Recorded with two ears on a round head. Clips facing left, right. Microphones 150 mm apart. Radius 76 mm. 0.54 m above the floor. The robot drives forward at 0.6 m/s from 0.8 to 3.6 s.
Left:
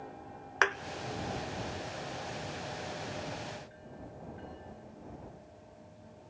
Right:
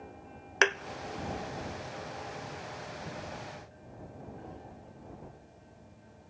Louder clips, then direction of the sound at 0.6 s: Right 3 dB; 25° right (ahead or behind).